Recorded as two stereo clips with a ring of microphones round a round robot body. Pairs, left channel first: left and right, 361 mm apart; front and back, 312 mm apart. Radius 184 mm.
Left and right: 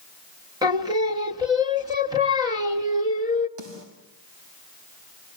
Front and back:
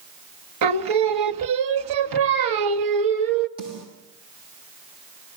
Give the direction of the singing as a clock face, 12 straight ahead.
6 o'clock.